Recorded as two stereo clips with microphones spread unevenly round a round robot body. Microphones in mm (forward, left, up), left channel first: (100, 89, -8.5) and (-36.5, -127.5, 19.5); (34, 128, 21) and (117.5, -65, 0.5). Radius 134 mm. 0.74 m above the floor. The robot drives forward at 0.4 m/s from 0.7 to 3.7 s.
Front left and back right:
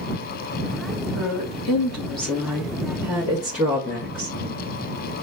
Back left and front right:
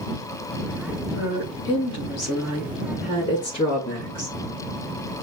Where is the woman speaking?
145° left, 3 m; by 4.4 s 150° left, 4 m.